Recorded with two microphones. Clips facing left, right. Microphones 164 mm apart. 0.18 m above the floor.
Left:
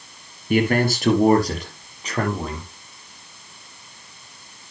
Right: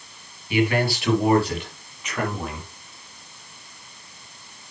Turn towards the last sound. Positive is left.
turn(degrees=30)  # may be behind; listen again after turning